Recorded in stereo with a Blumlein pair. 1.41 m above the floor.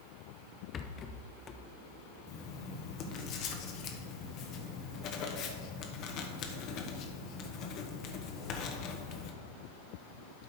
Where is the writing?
35° left, 1.2 m.